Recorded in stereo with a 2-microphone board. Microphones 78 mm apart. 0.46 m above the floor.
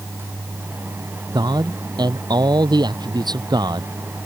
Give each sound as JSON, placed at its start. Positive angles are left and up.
{"t": 1.3, "sound": "a man speaking", "side_deg": -65}